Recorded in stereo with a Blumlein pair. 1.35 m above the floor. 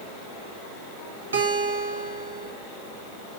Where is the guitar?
70° right, 1.2 m.